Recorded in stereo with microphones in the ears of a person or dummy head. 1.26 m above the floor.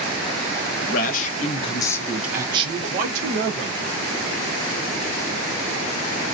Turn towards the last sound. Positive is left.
turn(degrees=-65)  # may be behind; listen again after turning